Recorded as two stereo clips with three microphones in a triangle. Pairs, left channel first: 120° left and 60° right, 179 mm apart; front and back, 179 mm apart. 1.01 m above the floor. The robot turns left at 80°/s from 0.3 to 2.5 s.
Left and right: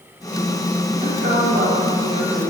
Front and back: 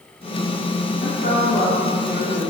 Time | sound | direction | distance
1.0 | a woman speaking | 15° right | 2.5 m